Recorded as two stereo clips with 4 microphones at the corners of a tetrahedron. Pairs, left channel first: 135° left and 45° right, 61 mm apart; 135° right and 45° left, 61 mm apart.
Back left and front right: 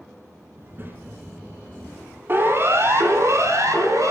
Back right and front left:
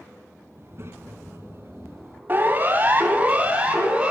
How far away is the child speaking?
About 2.5 m.